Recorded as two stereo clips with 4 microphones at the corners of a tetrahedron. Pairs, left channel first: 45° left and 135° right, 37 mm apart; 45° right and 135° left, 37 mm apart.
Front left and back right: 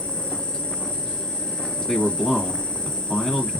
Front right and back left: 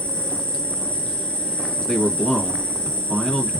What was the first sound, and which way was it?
An insect, 5° left.